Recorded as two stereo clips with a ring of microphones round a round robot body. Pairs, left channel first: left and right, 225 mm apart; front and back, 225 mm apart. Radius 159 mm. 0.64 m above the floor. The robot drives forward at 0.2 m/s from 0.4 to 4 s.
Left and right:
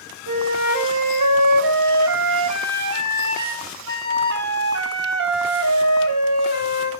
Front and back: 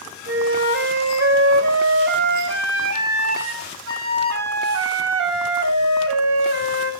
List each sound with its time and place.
0.3 s a flute: 120° right, 2 m; by 6.9 s 135° right, 2.5 m